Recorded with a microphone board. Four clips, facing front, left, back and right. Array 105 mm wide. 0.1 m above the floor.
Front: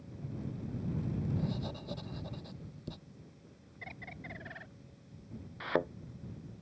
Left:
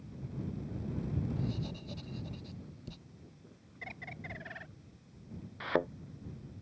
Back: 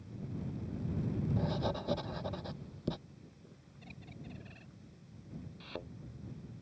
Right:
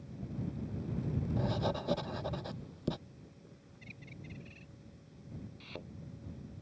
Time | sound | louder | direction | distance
1.4 | writing | right 5 dB, back 3 dB | 125° right | ?
3.8 | a bird | left 6 dB, front 3 dB | 55° left | ?
5.6 | a thud | left 16 dB, front 15 dB | 50° left | ?